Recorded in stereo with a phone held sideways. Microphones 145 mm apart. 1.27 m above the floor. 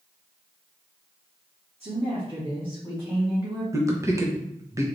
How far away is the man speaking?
About 0.9 m.